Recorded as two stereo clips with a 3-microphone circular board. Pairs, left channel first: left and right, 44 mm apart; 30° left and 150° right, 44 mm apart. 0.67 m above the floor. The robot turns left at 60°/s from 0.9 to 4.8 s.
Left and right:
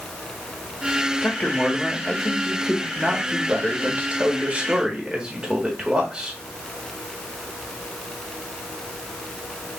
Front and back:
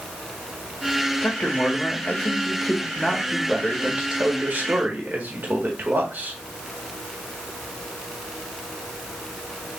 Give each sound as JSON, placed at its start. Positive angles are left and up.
{"t": 1.2, "sound": "a man speaking", "azimuth_deg": 65, "distance_m": 1.4}